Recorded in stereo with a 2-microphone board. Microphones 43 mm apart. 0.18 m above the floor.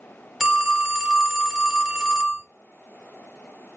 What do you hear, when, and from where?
0.4 s a phone ringing: 10° right (ahead or behind), 0.7 m